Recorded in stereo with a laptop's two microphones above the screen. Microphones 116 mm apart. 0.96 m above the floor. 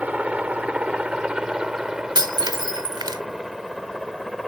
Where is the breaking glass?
40° right (ahead or behind).